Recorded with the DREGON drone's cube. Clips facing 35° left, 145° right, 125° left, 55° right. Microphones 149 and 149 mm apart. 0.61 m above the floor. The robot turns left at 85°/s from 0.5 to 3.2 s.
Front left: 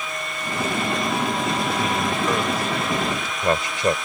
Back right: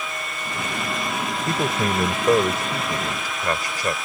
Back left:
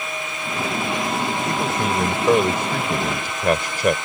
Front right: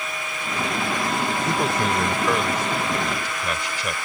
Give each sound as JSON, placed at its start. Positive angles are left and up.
{"t": 1.5, "sound": "a man speaking", "azimuth_deg": -115}